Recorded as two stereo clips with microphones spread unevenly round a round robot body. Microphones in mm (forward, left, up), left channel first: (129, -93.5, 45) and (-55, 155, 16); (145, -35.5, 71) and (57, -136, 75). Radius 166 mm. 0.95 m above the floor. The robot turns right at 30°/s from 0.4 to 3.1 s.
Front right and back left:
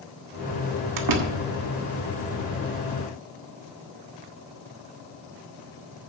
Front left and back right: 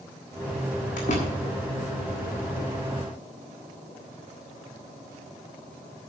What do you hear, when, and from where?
1.0 s a door slam: 95° left, 1.3 m; by 1.4 s 110° left, 1.3 m